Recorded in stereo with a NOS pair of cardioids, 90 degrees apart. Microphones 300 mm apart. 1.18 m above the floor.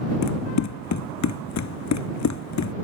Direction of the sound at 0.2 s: 65° left.